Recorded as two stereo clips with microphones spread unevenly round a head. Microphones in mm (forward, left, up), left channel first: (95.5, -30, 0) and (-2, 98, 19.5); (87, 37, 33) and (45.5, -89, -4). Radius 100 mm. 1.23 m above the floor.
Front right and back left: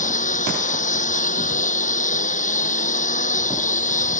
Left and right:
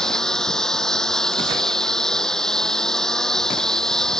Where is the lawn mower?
10° right.